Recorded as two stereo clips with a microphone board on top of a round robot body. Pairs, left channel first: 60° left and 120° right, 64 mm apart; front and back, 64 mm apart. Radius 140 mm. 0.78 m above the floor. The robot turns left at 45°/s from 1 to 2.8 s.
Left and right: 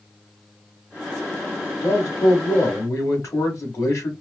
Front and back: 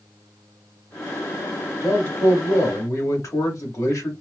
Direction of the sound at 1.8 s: 70° left.